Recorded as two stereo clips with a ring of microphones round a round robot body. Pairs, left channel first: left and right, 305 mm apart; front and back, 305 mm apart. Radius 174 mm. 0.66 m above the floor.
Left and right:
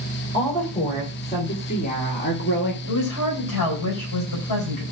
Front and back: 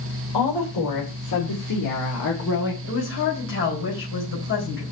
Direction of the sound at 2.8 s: 55° left.